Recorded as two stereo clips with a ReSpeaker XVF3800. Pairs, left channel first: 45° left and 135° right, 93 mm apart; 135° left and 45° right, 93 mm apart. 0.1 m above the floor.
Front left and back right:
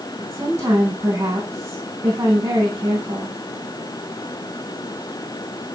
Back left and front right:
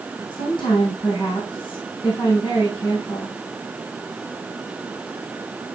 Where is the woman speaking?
170° left, 4.5 m.